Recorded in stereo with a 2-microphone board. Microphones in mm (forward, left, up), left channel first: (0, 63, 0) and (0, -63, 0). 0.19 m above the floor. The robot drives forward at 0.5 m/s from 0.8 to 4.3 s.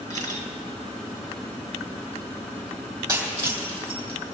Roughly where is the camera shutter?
Left.